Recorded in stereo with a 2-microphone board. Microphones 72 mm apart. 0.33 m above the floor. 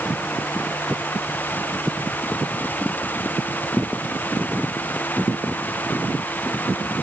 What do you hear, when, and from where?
Only background noise.